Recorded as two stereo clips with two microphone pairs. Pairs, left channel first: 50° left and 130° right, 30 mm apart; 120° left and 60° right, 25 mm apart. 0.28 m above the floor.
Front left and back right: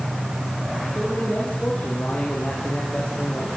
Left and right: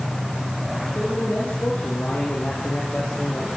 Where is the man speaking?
110° left, 8 m; by 3.5 s 85° left, 9 m.